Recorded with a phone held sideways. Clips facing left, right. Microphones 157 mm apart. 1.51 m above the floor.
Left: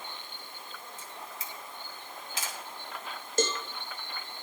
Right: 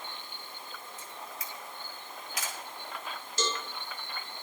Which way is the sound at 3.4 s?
55° left (ahead or behind).